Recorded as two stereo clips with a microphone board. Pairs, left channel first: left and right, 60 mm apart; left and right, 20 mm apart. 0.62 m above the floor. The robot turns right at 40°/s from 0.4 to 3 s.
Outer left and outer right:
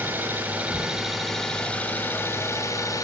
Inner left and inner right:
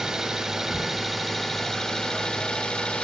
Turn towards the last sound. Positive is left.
turn(degrees=75)